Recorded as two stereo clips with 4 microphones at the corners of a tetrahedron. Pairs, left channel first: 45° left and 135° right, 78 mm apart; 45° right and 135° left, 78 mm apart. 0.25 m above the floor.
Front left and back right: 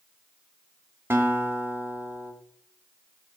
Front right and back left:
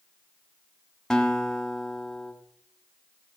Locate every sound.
1.1 s a guitar: 120° right, 1.6 m